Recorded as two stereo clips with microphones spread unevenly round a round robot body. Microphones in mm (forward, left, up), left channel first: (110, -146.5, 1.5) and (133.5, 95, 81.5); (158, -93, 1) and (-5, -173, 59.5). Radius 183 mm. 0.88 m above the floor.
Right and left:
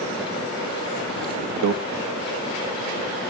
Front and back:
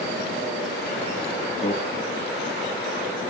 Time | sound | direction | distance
1.6 | a microwave | 80° left | 1.1 m